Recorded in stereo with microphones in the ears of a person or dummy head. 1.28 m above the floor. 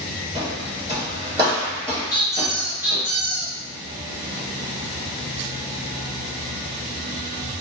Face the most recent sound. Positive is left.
turn(degrees=50)  # may be behind; listen again after turning